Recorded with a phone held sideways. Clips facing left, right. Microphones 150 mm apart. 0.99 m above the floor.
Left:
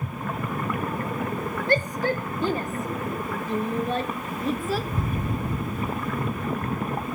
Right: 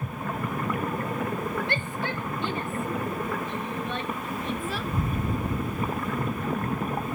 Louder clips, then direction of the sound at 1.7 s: Left 7 dB; 40° left (ahead or behind).